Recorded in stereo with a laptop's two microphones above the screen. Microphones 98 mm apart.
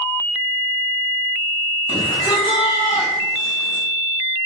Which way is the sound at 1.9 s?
60° left (ahead or behind).